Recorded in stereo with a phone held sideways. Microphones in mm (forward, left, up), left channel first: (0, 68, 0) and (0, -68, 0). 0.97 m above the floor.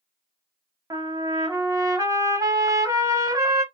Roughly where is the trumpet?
Right.